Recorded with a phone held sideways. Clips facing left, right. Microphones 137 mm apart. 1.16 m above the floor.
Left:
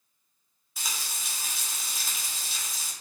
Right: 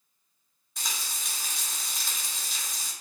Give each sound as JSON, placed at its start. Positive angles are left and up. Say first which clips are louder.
{"t": 0.8, "sound": "frying", "louder": "even", "side_deg": 5, "distance_m": 0.7}